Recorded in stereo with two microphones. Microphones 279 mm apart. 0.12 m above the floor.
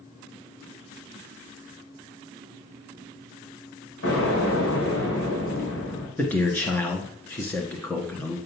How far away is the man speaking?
About 1.4 m.